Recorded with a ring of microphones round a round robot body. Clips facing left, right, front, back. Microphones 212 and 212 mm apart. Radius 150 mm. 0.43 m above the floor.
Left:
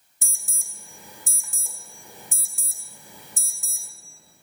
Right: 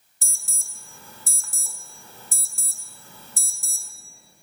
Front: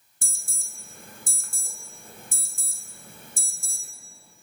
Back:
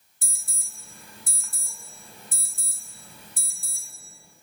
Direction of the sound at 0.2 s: 20° left.